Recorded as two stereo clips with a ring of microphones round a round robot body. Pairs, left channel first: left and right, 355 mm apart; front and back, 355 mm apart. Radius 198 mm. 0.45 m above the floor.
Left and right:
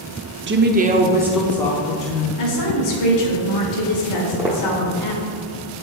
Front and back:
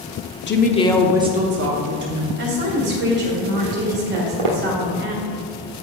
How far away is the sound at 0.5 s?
About 0.9 m.